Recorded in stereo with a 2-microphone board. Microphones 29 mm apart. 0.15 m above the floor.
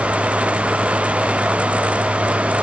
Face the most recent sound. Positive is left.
No sound to turn to.